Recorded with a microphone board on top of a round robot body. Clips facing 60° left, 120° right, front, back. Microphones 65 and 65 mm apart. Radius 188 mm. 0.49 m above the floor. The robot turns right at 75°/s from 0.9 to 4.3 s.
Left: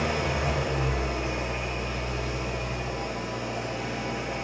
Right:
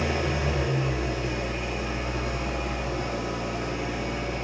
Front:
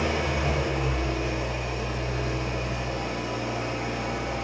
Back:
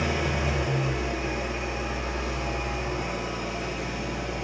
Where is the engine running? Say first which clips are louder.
Even, front 1 dB; 90° left, 1.6 m; by 4.4 s 15° right, 1.6 m.